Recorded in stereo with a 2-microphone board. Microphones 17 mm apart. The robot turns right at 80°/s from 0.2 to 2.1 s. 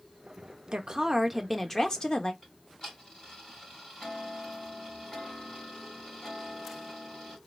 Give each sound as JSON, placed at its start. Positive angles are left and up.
{"t": 0.7, "sound": "a woman speaking", "azimuth_deg": -55, "distance_m": 1.1}
{"t": 2.4, "sound": "ticking", "side_deg": 40, "distance_m": 3.5}